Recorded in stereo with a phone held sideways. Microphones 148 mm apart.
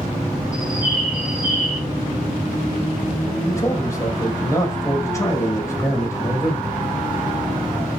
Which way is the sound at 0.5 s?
5° right (ahead or behind).